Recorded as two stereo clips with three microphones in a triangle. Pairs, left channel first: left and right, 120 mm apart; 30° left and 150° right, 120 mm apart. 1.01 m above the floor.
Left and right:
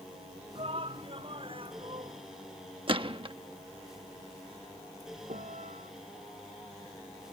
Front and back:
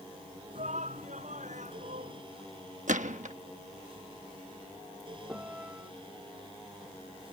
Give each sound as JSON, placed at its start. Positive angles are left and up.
{"t": 0.6, "sound": "a shout", "azimuth_deg": -130}
{"t": 2.9, "sound": "a gunshot", "azimuth_deg": -135}
{"t": 5.3, "sound": "a piano", "azimuth_deg": -70}